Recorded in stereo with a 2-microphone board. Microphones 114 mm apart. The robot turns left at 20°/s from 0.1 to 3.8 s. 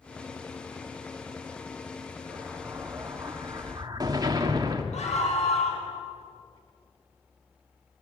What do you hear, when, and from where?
2.3 s an explosion: 5° right, 1.9 m; by 4.8 s 35° right, 1.9 m
4.9 s a scream: 85° left, 5.5 m